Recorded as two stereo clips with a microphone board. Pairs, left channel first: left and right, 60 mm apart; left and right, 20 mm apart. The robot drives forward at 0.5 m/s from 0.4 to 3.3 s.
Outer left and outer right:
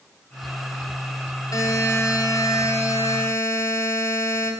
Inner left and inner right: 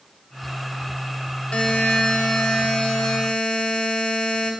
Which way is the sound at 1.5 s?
70° left (ahead or behind).